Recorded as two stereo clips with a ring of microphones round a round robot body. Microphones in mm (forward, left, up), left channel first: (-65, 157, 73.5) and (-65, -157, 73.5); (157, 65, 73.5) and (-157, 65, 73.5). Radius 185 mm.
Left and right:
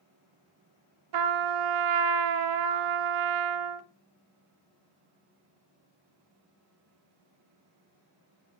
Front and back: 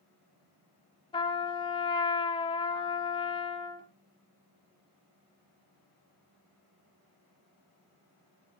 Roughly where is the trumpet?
Right.